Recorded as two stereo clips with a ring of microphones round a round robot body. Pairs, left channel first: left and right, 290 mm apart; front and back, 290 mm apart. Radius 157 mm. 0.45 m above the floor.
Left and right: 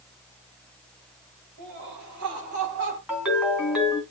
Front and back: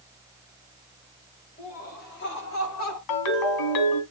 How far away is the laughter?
About 3 m.